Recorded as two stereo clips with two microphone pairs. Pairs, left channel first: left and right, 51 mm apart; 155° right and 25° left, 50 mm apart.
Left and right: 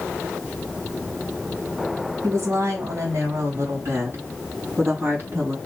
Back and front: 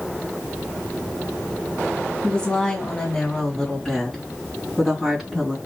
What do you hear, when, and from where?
2.2 s a woman speaking: 85° right, 4.5 m; by 5.6 s 50° right, 4 m